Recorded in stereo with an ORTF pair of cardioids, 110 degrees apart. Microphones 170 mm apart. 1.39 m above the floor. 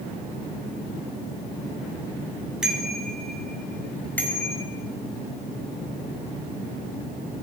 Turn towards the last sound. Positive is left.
turn(degrees=15)